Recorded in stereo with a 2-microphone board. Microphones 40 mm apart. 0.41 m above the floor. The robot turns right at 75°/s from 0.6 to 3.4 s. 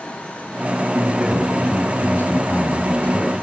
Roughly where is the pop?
No pop in this recording.